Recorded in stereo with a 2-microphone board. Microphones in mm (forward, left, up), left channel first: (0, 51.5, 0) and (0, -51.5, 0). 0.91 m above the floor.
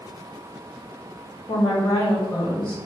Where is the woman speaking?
50° left (ahead or behind), 1.7 m.